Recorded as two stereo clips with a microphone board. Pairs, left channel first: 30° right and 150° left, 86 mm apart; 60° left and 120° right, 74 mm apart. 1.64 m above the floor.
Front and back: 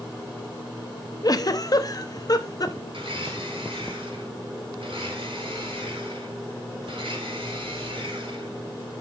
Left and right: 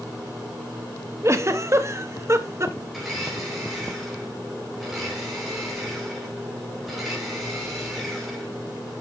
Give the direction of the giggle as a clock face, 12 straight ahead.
2 o'clock.